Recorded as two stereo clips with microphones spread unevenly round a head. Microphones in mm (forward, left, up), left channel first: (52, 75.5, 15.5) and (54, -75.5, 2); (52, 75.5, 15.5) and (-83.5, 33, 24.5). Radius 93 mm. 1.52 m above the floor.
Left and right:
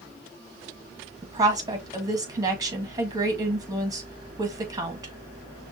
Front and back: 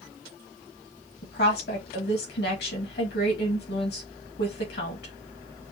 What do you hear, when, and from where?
1.2 s a woman speaking: 20° right, 1.7 m